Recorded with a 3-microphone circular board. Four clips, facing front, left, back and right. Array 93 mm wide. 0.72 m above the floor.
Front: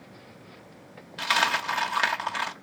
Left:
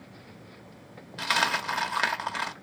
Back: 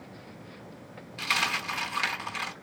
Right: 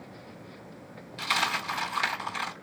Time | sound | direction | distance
1.2 | a dropped coin | 55° left | 0.9 m